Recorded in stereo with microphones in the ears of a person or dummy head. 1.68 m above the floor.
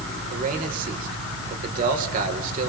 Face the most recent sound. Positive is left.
turn(degrees=-45)  # may be behind; listen again after turning